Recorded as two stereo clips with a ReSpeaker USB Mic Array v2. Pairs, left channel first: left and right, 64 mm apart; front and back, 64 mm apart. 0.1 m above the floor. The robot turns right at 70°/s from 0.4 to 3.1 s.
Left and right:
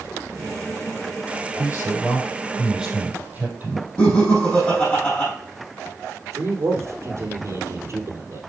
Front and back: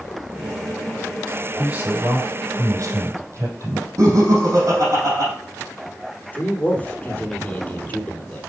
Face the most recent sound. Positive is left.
turn(degrees=-65)